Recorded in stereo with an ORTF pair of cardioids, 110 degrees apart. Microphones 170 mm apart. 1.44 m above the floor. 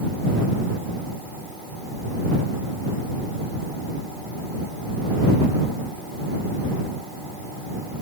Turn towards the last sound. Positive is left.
No sound to turn to.